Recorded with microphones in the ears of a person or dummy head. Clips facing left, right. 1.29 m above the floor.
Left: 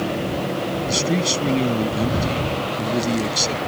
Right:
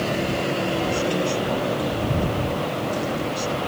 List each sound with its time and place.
0.9 s a man speaking: 85° left